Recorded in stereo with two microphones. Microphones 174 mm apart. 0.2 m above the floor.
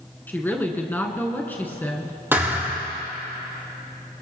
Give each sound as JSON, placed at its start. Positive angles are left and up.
{"t": 0.3, "sound": "a woman speaking", "side_deg": 10, "distance_m": 2.0}
{"t": 2.3, "sound": "a thud", "side_deg": -15, "distance_m": 3.0}